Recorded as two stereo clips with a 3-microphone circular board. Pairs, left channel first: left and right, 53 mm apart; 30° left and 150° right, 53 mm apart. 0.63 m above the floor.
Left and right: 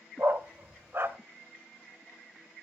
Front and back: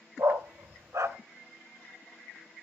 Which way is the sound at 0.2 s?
135° right.